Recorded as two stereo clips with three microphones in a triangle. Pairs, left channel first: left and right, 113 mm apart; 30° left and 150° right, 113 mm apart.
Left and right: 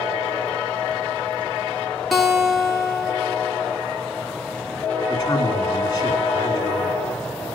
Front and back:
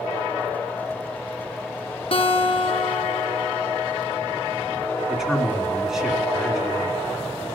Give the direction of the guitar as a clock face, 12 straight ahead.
12 o'clock.